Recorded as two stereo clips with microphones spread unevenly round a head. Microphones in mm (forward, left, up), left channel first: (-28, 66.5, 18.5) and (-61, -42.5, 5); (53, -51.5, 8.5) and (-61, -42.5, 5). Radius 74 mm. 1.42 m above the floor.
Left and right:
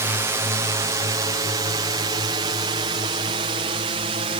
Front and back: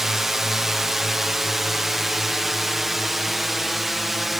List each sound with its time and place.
0.0 s a drone: 100° right; by 4.4 s 95° right